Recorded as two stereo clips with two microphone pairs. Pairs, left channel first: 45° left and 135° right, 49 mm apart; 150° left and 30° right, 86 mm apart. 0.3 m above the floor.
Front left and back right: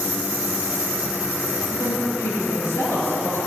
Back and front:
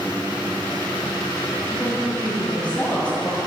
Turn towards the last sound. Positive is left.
turn(degrees=75)